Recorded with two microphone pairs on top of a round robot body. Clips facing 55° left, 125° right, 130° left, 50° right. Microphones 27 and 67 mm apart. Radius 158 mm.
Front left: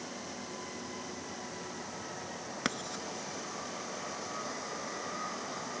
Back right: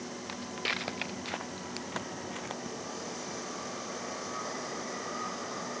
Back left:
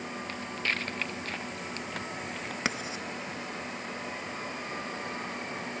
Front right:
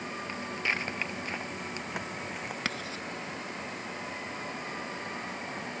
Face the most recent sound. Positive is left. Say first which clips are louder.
# front left 3 dB, back left 5 dB
turn(degrees=55)